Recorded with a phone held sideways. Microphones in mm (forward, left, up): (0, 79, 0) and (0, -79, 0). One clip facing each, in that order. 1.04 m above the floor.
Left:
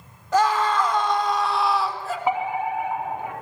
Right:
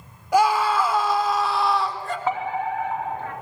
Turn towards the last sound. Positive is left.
turn(degrees=15)  # may be behind; listen again after turning